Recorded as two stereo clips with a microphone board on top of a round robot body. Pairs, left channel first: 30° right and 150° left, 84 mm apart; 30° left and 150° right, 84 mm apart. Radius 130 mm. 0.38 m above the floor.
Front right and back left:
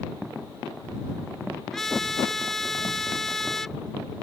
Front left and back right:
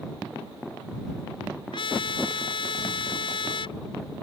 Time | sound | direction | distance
1.7 | a trumpet | 55° left | ?